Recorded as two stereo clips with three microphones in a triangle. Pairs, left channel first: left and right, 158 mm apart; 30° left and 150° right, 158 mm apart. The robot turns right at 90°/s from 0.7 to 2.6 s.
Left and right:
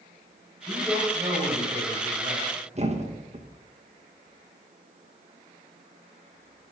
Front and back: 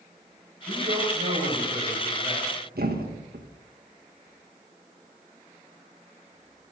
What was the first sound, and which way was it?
A man speaking, 165° left.